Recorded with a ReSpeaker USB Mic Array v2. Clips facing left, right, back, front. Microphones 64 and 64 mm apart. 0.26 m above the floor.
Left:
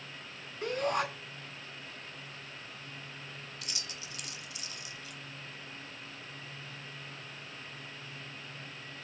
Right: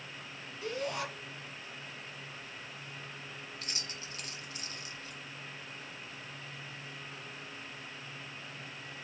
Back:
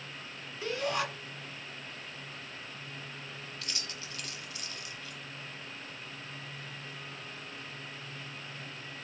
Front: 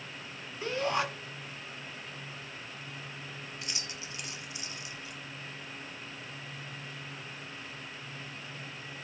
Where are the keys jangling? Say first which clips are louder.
Right 1 dB, front 1 dB; 60° right, 1.2 m.